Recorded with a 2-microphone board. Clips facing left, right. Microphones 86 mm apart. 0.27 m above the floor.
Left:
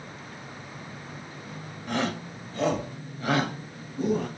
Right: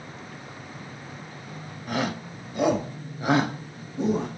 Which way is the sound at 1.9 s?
5° right (ahead or behind).